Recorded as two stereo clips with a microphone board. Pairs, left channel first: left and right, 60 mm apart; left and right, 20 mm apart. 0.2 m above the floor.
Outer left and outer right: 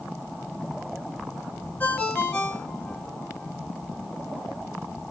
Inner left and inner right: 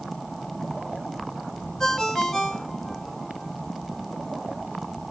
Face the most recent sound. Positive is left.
turn(degrees=25)  # may be behind; listen again after turning